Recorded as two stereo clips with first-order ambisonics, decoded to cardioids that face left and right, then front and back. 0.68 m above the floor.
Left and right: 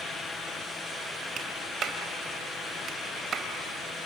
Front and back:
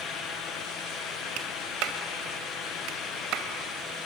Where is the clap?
150° right, 2.5 m.